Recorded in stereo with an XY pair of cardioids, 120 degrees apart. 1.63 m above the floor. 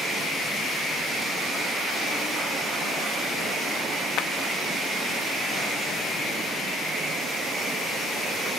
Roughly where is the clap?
Left.